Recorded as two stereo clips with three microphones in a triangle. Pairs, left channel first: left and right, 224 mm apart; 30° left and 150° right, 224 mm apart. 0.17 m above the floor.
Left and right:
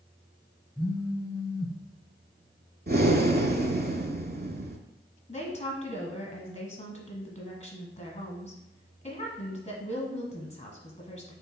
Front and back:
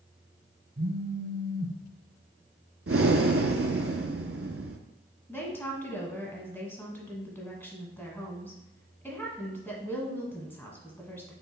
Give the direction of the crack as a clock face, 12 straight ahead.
No crack in this recording.